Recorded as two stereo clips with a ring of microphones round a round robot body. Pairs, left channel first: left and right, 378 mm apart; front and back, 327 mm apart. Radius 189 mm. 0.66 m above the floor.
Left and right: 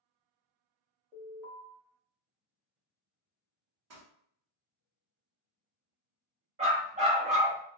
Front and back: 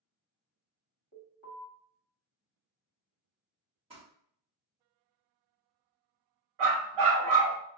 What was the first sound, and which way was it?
An alarm, 160° right.